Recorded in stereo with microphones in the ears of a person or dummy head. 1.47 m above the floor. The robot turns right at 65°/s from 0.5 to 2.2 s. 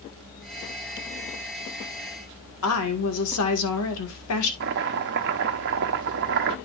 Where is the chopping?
60° right (ahead or behind), 0.9 m.